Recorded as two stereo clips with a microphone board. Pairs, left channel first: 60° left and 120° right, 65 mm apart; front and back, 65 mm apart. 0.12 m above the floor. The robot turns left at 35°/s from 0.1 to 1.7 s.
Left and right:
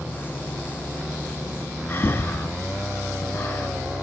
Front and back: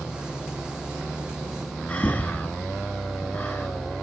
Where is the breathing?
50° left, 0.9 m.